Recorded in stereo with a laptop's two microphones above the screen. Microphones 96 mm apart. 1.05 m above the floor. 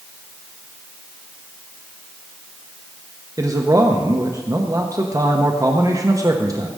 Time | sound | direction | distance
3.4 | a man speaking | 35° right (ahead or behind) | 0.9 m